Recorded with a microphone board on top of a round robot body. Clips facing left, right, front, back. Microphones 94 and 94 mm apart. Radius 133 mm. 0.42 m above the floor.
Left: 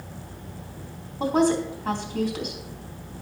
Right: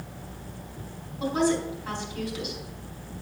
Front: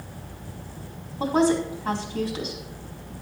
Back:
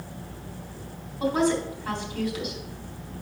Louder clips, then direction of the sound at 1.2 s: Left 3 dB, front 3 dB; 55° left.